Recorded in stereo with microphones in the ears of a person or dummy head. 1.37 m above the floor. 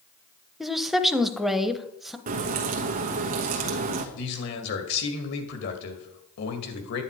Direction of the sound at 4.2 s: 60° left (ahead or behind).